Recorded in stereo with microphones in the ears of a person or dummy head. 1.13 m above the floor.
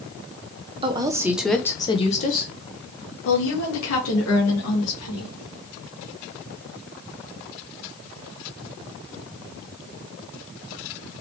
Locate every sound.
0.8 s a woman speaking: 30° right (ahead or behind), 1.0 m; by 5.3 s 80° left, 3 m